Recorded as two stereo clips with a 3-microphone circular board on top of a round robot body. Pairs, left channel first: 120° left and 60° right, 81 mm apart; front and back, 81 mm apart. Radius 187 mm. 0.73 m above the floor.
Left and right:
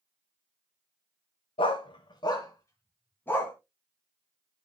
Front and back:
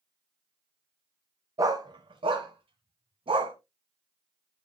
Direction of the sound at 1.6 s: 125° left.